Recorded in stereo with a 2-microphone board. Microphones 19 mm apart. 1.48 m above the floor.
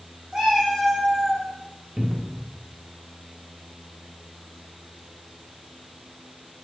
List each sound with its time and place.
0.3 s a cat meowing: 50° right (ahead or behind), 2 m; by 1.5 s 5° right (ahead or behind), 1.2 m
2.0 s a cupboard door: 60° right (ahead or behind), 0.6 m